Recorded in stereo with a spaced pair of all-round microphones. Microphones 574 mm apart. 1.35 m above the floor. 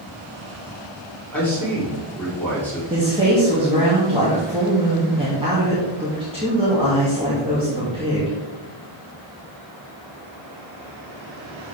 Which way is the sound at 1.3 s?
5° left (ahead or behind).